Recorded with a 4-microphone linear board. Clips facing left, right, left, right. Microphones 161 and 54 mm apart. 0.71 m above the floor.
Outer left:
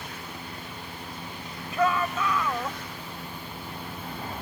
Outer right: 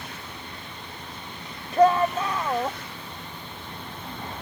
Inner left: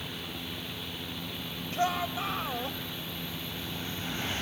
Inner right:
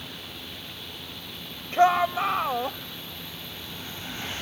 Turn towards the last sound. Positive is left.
turn(degrees=-30)  # may be behind; listen again after turning